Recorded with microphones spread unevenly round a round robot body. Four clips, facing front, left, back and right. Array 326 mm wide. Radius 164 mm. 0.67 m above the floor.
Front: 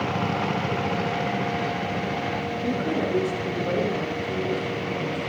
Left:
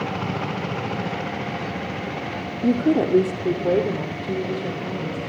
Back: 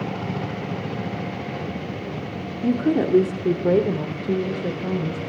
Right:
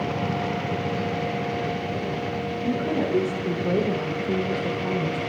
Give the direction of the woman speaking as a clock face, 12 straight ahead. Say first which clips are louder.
Left 7 dB, back 7 dB; 8 o'clock.